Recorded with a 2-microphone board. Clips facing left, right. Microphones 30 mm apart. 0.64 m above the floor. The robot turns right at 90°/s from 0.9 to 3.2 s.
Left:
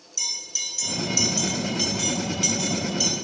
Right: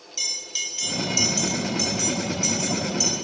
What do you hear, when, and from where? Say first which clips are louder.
0.2 s a bell: right 1 dB; 35° right (ahead or behind), 2.5 m; by 3.1 s 15° left (ahead or behind), 2.5 m